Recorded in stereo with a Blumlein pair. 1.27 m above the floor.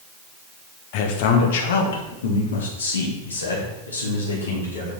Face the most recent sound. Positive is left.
turn(degrees=80)